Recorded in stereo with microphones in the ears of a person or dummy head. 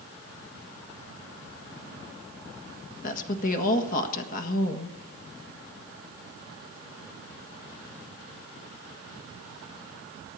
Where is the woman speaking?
50° left (ahead or behind), 1.6 m.